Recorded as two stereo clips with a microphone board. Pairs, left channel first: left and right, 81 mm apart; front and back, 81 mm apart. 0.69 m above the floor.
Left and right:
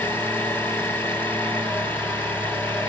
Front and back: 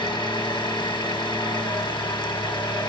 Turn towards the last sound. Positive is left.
turn(degrees=25)